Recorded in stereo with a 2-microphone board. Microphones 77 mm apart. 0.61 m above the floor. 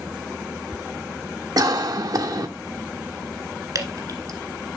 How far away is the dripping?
About 1.5 m.